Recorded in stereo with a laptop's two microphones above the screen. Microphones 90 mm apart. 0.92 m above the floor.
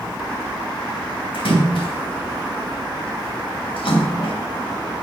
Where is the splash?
80° left, 3.5 m.